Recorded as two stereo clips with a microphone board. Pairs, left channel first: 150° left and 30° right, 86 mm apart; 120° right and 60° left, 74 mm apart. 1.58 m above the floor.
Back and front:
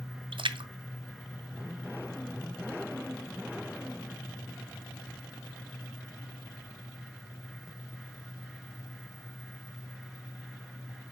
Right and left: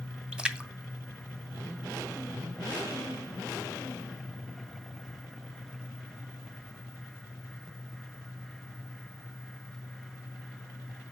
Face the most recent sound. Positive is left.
turn(degrees=-20)